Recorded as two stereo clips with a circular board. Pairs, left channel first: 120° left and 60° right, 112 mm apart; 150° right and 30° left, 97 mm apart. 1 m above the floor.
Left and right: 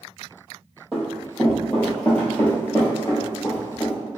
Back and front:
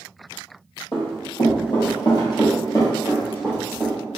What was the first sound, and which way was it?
Running footsteps, 145° right.